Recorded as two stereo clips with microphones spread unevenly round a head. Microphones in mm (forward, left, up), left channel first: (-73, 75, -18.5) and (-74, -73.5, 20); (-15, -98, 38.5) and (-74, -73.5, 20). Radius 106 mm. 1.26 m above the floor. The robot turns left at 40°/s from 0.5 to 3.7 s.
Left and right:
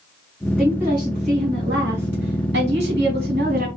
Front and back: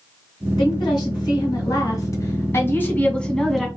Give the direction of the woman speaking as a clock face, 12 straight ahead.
12 o'clock.